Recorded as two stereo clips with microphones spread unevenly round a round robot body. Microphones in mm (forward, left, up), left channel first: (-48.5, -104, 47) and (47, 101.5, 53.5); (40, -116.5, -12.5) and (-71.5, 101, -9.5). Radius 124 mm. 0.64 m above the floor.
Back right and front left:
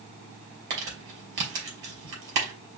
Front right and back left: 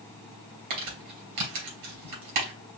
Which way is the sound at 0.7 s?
100° left.